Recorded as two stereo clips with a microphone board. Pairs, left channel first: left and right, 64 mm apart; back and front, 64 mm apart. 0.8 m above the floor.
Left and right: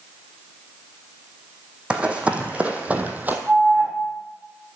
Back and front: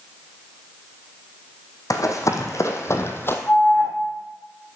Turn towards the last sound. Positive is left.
turn(degrees=-135)